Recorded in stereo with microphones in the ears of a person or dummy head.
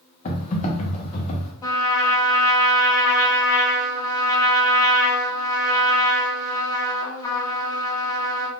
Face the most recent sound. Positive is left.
turn(degrees=20)  # may be behind; listen again after turning